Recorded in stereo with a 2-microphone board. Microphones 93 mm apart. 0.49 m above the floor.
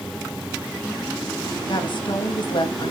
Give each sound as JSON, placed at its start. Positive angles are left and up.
{"t": 1.7, "sound": "a woman speaking", "side_deg": 60, "distance_m": 2.5}